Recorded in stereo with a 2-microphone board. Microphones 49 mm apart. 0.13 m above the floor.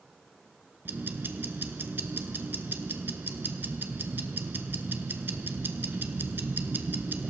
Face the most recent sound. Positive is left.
turn(degrees=-45)  # may be behind; listen again after turning